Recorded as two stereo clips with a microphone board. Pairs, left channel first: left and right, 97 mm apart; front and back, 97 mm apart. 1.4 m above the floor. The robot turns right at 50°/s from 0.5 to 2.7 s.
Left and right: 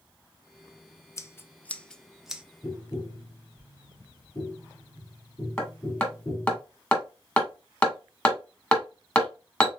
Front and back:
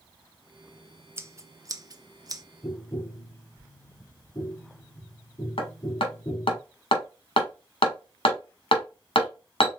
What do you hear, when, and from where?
1.2 s scissors: 130° left, 0.5 m; by 2.4 s 165° right, 0.5 m
2.6 s tapping: 50° left, 2.5 m; by 6.6 s 55° left, 2.5 m
5.6 s hammering: 20° left, 1.8 m